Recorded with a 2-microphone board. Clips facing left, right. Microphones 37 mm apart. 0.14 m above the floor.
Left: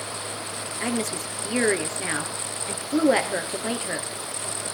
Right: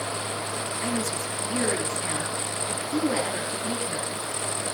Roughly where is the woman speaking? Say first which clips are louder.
Left 3 dB; left.